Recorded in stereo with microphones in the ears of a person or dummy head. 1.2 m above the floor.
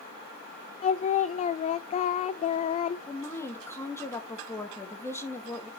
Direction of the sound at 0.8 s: 30° left (ahead or behind).